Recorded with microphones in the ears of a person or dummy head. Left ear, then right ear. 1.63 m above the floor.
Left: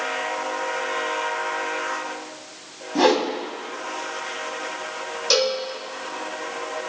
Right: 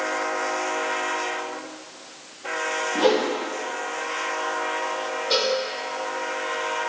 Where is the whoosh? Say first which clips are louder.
Left 3 dB; 70° left (ahead or behind), 3.5 m.